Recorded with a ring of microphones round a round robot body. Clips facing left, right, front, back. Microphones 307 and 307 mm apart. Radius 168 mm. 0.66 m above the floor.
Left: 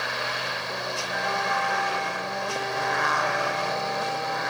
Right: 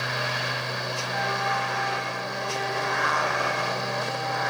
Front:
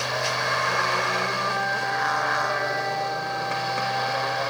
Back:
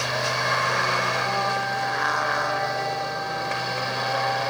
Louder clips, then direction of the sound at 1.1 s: Even, back 1 dB; 20° right.